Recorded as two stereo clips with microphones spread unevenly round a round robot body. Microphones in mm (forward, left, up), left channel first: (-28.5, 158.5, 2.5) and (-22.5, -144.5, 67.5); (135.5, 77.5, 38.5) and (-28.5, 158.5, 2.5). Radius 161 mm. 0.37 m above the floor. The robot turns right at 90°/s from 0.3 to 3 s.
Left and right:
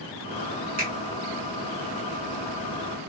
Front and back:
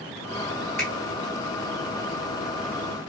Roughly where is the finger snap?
Right.